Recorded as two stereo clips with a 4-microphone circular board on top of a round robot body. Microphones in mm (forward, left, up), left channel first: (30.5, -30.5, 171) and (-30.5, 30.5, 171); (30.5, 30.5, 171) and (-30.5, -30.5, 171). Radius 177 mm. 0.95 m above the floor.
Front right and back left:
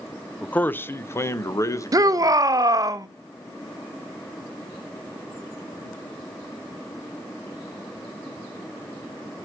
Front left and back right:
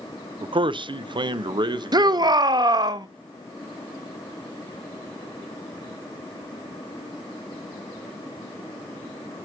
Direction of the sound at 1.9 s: 175° right.